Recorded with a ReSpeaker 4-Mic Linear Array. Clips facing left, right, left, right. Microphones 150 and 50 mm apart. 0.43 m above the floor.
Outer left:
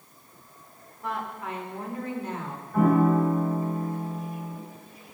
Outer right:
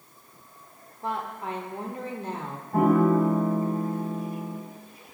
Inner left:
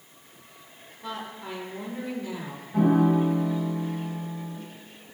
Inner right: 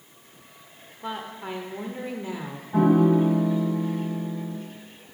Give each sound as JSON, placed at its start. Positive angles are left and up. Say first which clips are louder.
{"t": 1.0, "sound": "a woman speaking", "louder": "outer right 1 dB, inner right 3 dB", "side_deg": -30, "distance_m": 1.1}
{"t": 2.7, "sound": "a piano", "louder": "outer right 1 dB, inner right 2 dB", "side_deg": -65, "distance_m": 3.5}